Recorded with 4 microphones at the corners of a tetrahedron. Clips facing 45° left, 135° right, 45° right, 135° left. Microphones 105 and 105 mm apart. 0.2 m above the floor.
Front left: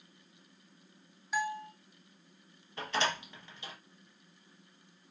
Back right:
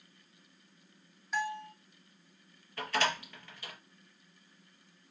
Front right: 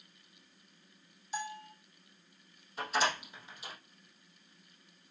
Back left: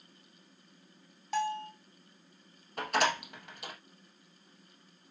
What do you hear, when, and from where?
1.3 s a bell: 130° left, 1.7 m
2.8 s a door slam: 115° left, 4 m